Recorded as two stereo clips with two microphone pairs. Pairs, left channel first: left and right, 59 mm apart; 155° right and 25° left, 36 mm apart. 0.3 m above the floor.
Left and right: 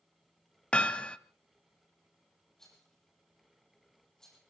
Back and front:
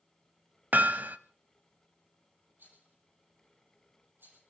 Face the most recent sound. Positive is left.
turn(degrees=10)